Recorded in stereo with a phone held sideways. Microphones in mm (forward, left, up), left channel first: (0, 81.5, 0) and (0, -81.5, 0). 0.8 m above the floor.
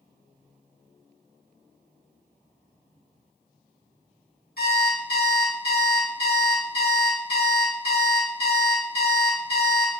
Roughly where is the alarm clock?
Left.